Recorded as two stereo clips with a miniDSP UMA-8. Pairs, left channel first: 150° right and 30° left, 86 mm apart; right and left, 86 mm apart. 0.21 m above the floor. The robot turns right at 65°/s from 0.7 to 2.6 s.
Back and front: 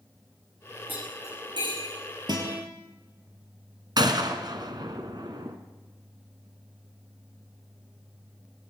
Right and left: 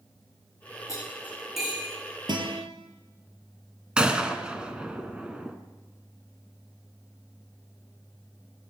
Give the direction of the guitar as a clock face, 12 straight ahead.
10 o'clock.